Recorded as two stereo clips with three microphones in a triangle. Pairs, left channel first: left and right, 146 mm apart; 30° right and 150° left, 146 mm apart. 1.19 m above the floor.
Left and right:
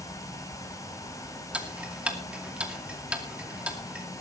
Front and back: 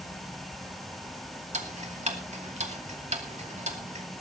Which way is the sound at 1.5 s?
170° right.